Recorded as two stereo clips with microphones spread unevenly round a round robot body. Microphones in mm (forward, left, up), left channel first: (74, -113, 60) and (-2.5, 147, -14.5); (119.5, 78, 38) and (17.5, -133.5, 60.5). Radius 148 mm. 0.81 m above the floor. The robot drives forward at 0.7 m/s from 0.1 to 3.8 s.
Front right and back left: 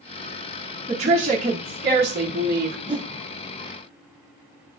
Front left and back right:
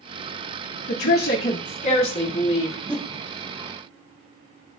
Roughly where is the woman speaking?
Ahead left.